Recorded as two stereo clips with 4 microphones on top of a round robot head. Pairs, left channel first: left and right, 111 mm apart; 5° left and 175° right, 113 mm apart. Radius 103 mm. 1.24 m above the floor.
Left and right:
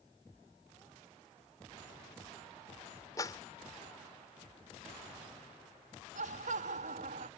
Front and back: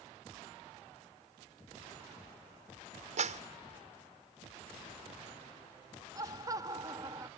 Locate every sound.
3.2 s a clap: 160° left
6.2 s laughter: 110° right